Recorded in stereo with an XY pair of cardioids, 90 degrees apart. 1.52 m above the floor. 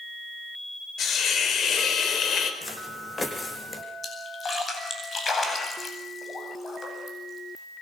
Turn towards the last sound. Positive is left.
turn(degrees=40)